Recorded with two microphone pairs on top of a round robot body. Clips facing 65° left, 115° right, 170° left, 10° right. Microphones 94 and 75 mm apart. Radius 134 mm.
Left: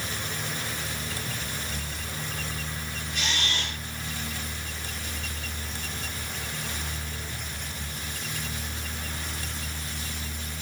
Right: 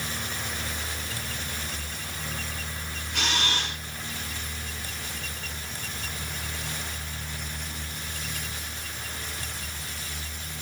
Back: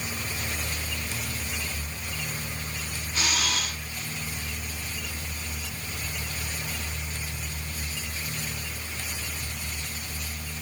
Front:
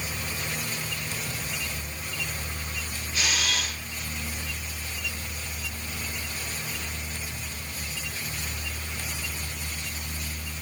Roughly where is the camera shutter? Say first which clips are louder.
Right 3 dB, even; behind right.